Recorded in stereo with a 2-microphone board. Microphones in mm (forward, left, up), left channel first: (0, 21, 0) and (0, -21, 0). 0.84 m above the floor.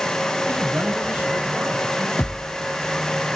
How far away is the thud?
About 2 m.